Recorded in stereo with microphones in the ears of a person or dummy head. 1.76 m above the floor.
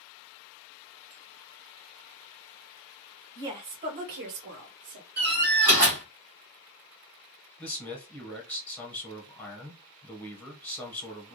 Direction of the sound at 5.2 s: 20° right (ahead or behind).